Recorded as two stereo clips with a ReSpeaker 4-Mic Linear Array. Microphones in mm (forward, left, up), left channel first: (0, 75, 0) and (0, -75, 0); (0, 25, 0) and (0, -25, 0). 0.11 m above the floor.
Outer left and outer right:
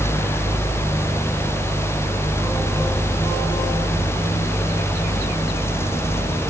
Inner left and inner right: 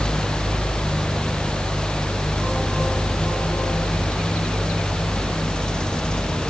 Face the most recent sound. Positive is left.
No sound to turn to.